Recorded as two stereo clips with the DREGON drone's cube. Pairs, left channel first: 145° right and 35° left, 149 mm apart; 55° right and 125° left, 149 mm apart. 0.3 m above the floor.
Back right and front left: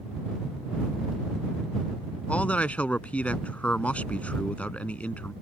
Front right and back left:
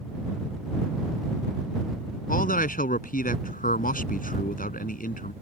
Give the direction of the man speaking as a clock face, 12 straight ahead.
2 o'clock.